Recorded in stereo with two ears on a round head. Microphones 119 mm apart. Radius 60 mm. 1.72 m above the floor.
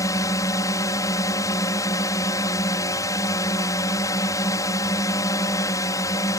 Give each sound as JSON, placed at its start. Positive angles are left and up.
{"t": 0.0, "sound": "a drone", "side_deg": 25}